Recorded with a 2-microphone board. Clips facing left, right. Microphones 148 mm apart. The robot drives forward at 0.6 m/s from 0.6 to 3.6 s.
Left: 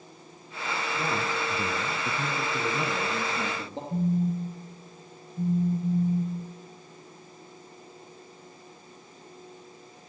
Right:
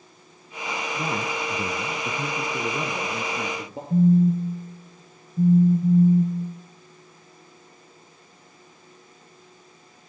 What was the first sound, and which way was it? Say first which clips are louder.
A man speaking: right 1 dB; 20° right (ahead or behind).